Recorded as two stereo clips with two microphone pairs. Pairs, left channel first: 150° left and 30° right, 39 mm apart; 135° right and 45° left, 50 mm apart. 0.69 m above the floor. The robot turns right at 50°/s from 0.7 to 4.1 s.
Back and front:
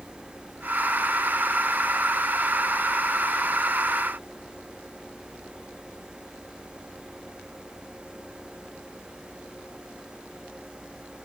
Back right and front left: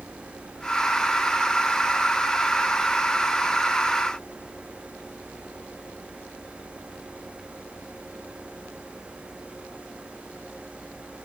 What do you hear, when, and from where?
Only background noise.